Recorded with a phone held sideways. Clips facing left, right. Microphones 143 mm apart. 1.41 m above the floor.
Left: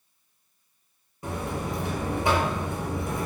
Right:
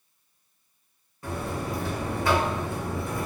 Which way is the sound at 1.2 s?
20° left (ahead or behind).